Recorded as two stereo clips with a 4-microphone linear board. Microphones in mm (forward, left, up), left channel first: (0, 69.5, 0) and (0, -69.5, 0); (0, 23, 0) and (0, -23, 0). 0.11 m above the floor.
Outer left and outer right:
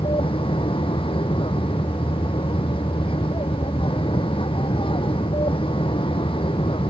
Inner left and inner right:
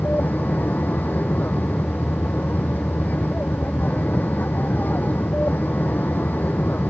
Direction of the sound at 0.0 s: 40° left (ahead or behind).